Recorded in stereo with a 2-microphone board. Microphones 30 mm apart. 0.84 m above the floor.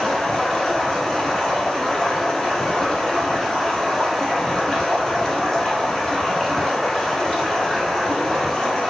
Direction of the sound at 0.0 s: 20° left (ahead or behind).